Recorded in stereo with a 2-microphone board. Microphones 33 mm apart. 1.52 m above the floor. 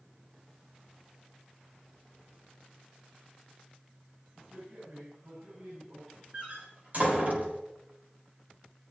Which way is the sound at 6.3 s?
45° right (ahead or behind).